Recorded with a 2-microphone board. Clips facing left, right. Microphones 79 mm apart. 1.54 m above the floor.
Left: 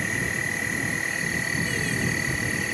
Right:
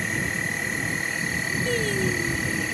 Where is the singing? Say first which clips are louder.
Right 3 dB; 55° right (ahead or behind).